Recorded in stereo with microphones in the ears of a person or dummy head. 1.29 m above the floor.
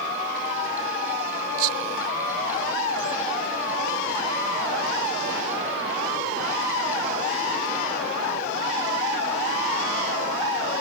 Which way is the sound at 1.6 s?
65° right (ahead or behind).